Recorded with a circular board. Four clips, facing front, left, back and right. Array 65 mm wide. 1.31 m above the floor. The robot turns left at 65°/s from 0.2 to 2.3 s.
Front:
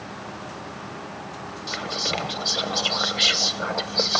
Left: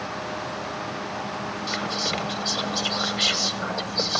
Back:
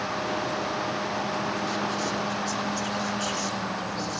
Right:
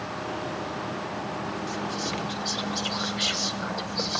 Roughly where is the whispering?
Ahead left.